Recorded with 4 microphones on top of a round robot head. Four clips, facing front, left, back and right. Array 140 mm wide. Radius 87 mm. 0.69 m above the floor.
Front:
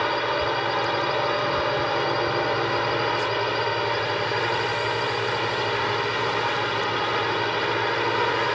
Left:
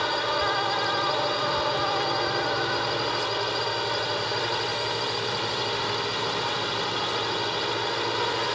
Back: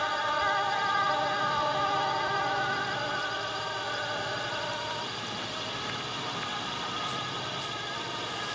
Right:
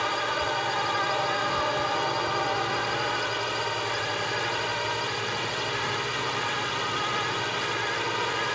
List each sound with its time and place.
0.0 s a drone: 15° left